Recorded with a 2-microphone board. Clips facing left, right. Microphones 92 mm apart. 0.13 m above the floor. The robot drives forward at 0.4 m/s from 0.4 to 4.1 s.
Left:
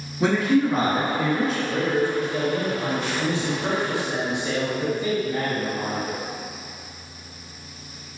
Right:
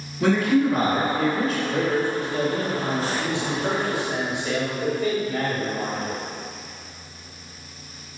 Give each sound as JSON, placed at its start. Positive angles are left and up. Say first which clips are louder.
{"t": 0.2, "sound": "a man speaking", "louder": "even", "side_deg": 20, "distance_m": 1.3}
{"t": 1.7, "sound": "a man speaking", "louder": "left 1 dB", "side_deg": 40, "distance_m": 1.7}